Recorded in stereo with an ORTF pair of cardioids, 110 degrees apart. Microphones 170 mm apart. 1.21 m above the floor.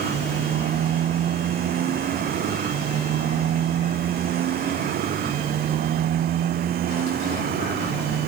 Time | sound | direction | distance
0.0 | a motorcycle | 60° right | ?